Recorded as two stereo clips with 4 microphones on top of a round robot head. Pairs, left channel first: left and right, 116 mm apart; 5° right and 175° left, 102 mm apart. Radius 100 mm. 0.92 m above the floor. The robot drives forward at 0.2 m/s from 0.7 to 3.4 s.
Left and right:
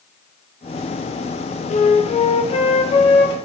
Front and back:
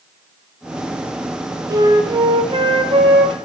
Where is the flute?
115° left, 0.5 m; by 3.3 s 140° left, 0.7 m.